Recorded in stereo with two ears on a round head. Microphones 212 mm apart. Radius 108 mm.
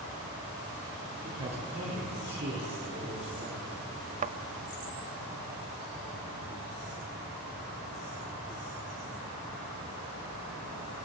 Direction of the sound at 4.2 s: 35° right (ahead or behind).